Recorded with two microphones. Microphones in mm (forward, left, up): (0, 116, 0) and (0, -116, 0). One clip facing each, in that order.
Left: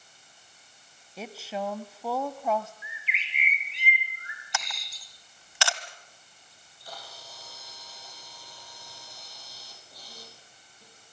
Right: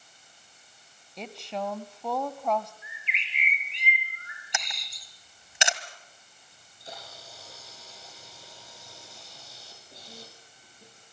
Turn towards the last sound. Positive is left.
turn(degrees=-25)  # may be behind; listen again after turning